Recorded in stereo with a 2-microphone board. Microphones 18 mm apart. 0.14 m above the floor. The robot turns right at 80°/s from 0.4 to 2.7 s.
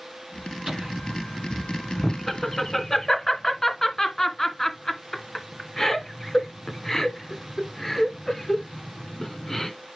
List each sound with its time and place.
0.7 s laughter: 30° right (ahead or behind), 1.4 m; by 9.7 s 30° left (ahead or behind), 1.4 m